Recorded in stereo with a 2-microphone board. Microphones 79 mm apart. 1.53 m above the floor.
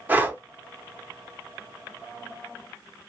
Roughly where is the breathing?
Centre.